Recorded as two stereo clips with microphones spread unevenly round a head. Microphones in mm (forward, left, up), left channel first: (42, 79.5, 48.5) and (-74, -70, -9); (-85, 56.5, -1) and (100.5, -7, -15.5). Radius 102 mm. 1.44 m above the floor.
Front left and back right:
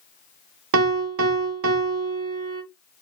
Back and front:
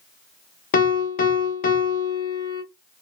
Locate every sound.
0.7 s a piano: 145° right, 0.6 m